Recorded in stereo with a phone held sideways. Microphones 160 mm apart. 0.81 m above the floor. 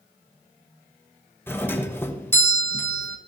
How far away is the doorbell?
About 1.0 m.